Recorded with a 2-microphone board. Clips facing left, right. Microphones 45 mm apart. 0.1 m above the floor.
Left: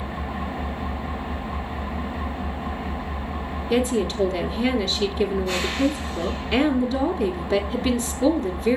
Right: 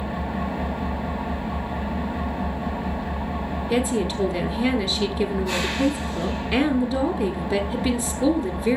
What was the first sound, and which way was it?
An engine running, 85° right.